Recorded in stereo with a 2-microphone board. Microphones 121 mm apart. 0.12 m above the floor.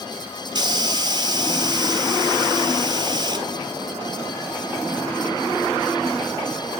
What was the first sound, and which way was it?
A hiss, 35° right (ahead or behind).